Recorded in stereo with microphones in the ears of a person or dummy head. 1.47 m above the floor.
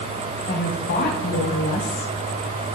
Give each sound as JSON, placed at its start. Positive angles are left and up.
{"t": 0.5, "sound": "a woman speaking", "side_deg": 55, "distance_m": 6.0}